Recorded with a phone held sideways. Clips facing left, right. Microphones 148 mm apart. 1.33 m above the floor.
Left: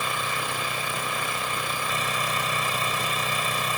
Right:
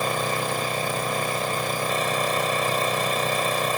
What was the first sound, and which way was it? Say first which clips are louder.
An engine running: right 5 dB; 40° right (ahead or behind).